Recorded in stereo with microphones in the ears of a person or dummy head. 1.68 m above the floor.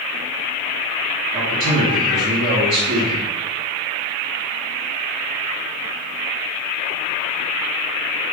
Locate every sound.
1.3 s a man speaking: 55° right (ahead or behind), 1.2 m